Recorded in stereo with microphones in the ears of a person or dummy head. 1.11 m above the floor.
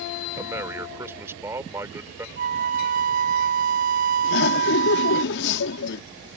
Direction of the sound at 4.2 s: 60° left (ahead or behind).